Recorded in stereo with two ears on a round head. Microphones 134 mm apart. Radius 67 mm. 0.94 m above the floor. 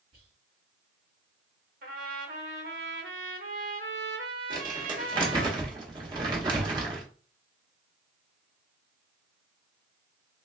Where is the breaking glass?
I don't hear breaking glass.